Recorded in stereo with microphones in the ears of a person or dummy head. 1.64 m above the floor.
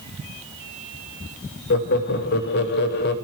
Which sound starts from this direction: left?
Laughter, at 1.7 s.